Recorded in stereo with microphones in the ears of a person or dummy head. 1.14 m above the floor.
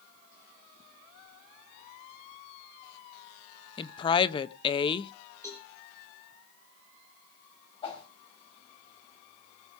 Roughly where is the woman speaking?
Left.